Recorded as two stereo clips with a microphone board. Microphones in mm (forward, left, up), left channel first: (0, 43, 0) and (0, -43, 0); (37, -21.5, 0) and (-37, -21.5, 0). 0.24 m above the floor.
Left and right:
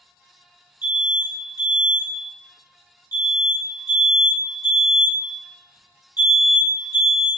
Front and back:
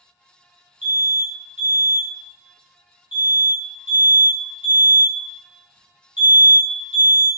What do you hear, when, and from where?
0.8 s an alarm: 115° left, 1.9 m